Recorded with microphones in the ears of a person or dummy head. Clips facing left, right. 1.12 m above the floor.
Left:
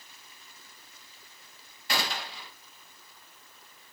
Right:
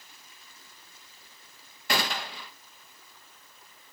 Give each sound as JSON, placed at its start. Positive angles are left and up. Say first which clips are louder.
{"t": 1.9, "sound": "a gunshot", "louder": "right 3 dB", "side_deg": -45, "distance_m": 0.6}